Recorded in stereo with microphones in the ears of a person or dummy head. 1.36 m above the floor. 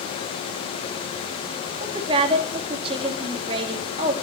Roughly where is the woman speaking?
Right.